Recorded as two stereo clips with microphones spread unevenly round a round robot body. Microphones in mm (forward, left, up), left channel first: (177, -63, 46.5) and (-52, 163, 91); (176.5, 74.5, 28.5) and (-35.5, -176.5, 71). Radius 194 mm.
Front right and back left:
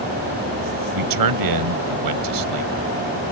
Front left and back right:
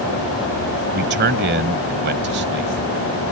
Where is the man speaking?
165° left.